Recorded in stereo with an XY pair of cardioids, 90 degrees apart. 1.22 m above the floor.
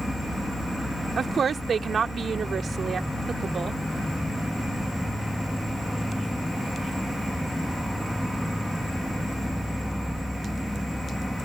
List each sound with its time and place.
0.0 s an insect: straight ahead
1.2 s a woman speaking: 50° right